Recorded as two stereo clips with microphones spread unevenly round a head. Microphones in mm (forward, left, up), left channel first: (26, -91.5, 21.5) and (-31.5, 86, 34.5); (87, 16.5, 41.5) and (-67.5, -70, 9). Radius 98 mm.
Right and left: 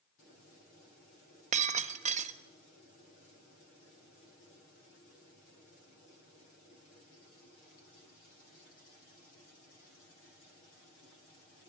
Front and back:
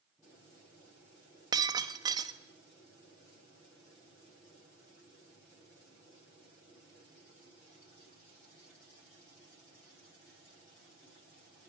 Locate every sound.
1.5 s breaking glass: 135° left, 1.2 m